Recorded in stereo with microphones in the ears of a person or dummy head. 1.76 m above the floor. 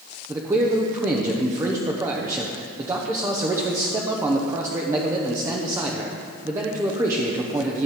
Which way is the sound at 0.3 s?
15° right (ahead or behind).